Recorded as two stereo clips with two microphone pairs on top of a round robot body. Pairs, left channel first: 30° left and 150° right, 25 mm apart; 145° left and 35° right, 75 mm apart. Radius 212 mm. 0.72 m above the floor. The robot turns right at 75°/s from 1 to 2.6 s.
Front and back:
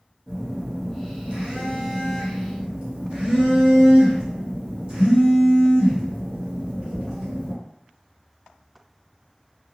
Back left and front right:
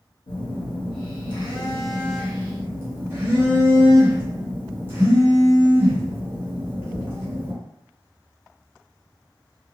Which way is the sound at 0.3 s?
140° left.